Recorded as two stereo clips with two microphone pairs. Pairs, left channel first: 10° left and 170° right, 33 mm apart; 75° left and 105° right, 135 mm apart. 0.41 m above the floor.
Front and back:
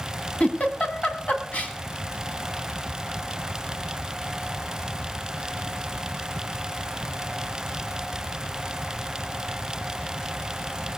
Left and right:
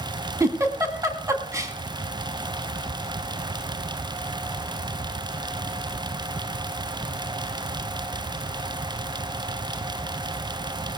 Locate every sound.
0.4 s a giggle: 35° right, 1.8 m